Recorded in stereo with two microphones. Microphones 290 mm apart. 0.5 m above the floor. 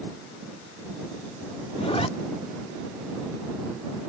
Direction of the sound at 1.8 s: 20° left (ahead or behind).